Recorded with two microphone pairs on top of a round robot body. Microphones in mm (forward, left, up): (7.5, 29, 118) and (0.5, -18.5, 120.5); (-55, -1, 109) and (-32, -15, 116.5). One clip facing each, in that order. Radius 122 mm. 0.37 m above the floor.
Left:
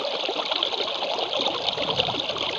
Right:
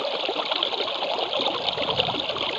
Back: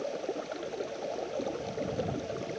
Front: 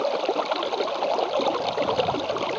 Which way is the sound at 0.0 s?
15° right.